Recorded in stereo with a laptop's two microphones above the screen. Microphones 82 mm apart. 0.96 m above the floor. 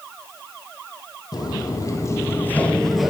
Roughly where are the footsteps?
Left.